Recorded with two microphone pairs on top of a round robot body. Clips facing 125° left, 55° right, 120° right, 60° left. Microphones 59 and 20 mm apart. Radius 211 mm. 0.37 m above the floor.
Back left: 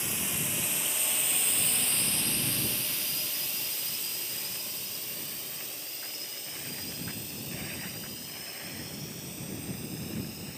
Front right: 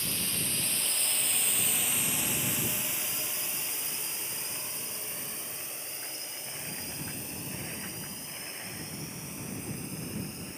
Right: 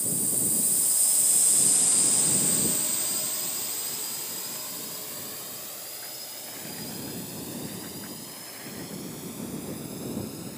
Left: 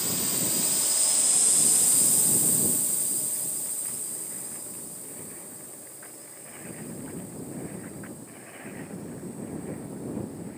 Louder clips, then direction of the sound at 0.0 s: Back left 1 dB, left 1 dB; 60° left.